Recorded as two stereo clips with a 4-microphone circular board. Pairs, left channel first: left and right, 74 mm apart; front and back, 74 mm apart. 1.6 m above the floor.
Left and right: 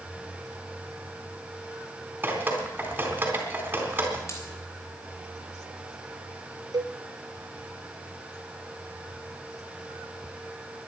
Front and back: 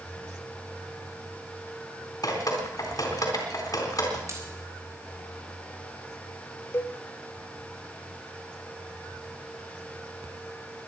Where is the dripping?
25° right, 3.5 m.